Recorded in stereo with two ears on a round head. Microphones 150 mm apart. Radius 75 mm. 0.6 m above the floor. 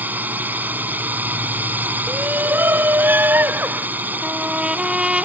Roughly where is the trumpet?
Centre.